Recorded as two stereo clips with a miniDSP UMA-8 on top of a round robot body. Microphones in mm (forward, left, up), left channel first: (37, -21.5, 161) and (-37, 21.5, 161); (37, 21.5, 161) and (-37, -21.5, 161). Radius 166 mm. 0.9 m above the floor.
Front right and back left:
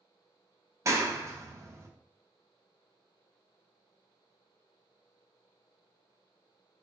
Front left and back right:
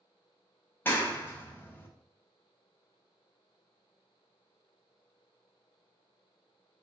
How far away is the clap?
About 0.9 m.